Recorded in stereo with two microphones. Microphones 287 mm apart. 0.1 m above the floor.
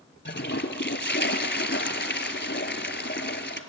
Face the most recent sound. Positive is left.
turn(degrees=40)  # may be behind; listen again after turning